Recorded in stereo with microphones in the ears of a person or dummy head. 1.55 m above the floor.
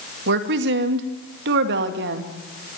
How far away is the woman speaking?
About 2 m.